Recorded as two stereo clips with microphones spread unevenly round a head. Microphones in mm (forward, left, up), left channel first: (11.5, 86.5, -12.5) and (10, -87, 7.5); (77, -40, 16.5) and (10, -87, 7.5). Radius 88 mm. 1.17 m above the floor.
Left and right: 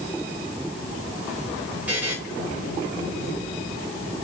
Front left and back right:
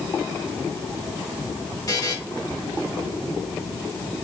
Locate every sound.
1.9 s a buzzer: 10° right, 3.5 m